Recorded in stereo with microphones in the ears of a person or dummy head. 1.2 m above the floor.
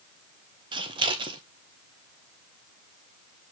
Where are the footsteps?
I don't hear footsteps.